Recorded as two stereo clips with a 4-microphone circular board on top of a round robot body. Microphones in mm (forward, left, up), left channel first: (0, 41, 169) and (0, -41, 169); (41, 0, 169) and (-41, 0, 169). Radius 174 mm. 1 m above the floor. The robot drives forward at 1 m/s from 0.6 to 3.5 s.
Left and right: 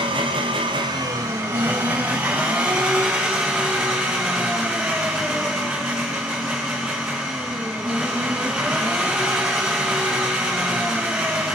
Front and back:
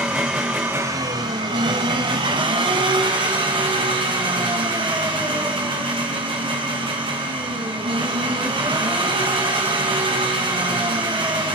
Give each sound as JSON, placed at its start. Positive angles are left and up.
{"t": 0.0, "sound": "an engine running", "azimuth_deg": -100, "distance_m": 0.8}